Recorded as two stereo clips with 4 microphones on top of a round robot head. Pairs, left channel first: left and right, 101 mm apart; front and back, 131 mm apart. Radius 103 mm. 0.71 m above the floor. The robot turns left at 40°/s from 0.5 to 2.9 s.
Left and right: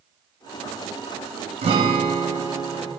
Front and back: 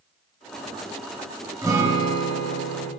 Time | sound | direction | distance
1.6 | a guitar | 110° right | 0.9 m